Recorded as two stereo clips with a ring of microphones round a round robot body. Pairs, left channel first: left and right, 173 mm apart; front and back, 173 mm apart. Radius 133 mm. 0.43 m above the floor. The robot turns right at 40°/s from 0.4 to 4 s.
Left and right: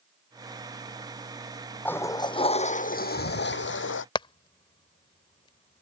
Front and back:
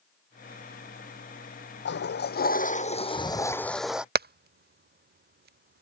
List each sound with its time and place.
1.9 s a toilet flushing: 10° left; by 4.0 s 95° left
4.2 s hammering: 155° left